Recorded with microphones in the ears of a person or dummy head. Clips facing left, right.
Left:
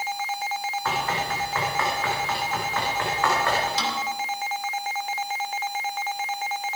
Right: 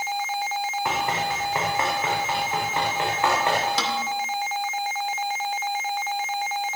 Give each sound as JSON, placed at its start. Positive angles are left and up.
{"t": 0.8, "sound": "running footsteps", "side_deg": -15, "distance_m": 6.0}
{"t": 3.8, "sound": "a snare drum", "side_deg": -65, "distance_m": 2.5}